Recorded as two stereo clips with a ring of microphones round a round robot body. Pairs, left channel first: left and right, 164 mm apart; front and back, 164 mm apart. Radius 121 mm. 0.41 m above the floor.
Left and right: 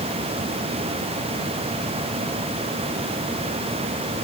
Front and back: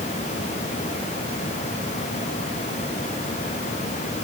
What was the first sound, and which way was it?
Only background noise.